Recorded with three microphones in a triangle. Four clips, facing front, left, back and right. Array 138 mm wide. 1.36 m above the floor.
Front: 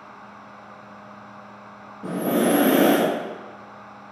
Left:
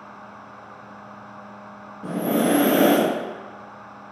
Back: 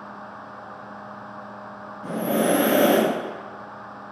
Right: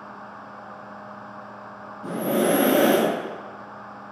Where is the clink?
I don't hear a clink.